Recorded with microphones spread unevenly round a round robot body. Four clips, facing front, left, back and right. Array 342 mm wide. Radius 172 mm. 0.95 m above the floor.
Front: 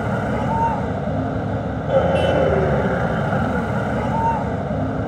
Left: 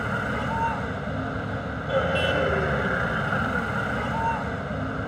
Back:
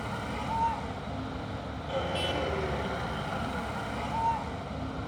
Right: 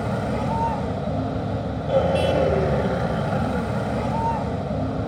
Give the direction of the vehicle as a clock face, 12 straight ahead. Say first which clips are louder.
Right 3 dB, front 13 dB; 1 o'clock.